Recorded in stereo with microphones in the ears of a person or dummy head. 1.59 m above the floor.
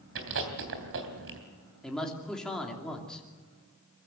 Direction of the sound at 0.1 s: 65° right (ahead or behind).